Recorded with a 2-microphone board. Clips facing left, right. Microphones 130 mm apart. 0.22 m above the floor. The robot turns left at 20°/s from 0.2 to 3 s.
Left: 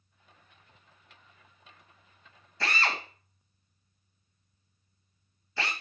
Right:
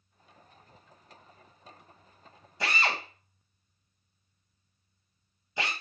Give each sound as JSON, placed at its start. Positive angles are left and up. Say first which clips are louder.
{"t": 2.6, "sound": "a drill", "louder": "even", "side_deg": -15, "distance_m": 1.5}